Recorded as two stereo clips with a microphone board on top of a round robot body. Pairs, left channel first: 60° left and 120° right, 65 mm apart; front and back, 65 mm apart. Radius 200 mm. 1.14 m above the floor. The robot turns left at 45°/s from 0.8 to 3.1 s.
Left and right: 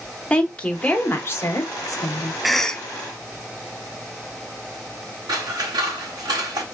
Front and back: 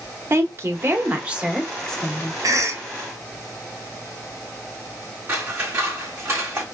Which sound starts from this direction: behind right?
Scissors, at 5.3 s.